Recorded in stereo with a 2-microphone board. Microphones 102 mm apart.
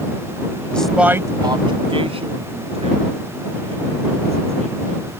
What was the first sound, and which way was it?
A man speaking, 15° left (ahead or behind).